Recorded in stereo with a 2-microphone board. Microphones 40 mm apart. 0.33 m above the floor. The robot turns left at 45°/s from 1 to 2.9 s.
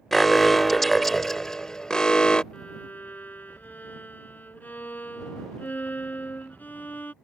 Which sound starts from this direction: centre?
An alarm, at 0.1 s.